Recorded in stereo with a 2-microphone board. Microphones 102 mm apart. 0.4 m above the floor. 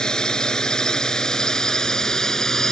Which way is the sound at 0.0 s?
10° left (ahead or behind).